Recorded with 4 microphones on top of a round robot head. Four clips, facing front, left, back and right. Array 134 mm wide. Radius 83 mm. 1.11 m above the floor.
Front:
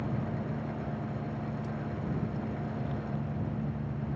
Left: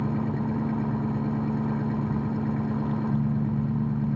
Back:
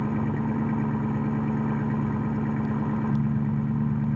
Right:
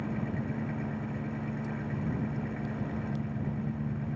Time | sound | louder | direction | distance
0.0 | an engine running | left 7 dB, back 8 dB | 145° left | ?